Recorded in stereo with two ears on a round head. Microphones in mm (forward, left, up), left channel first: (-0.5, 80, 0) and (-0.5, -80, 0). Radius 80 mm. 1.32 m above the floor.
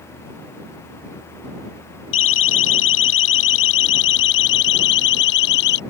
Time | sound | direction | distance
2.1 | a siren | 85° left | ?